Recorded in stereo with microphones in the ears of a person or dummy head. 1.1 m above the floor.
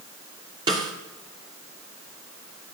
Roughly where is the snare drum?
Centre.